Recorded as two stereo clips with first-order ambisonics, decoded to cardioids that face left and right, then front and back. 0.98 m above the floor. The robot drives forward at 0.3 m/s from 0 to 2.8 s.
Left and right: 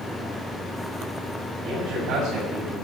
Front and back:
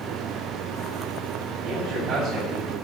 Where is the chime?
I don't hear a chime.